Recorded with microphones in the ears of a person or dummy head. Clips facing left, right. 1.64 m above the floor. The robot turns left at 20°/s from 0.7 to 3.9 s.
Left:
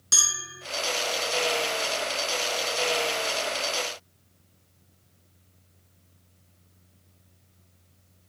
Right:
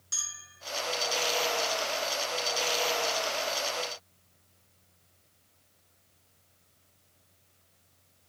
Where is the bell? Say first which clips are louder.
Left 14 dB; 75° left (ahead or behind).